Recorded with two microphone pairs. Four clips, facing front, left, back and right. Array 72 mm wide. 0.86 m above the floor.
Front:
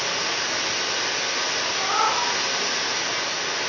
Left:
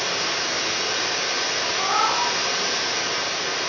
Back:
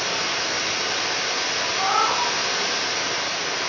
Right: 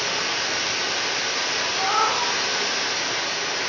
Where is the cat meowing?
170° right, 1.9 m.